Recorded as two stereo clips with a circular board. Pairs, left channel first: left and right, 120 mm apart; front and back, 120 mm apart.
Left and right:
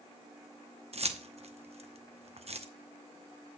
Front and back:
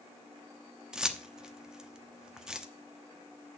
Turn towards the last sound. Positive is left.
turn(degrees=-95)